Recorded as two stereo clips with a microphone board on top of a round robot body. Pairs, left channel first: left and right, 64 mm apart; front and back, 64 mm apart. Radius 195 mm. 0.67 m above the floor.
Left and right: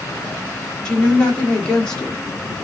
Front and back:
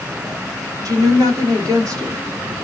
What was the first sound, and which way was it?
A woman speaking, 160° left.